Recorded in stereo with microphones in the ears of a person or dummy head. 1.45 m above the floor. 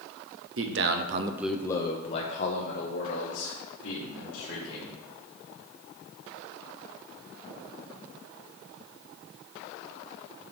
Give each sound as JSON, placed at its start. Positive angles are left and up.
{"t": 0.6, "sound": "a man speaking", "side_deg": -70, "distance_m": 0.8}